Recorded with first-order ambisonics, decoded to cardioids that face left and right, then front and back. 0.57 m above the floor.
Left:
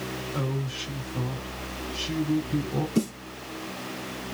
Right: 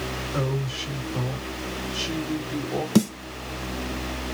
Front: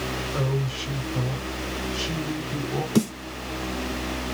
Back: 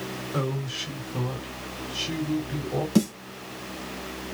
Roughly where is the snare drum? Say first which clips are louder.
Right 6 dB, front 1 dB; right.